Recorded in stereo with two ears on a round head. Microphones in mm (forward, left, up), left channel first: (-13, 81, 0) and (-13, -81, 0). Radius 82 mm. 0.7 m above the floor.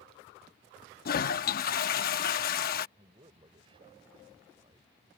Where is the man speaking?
30° right (ahead or behind).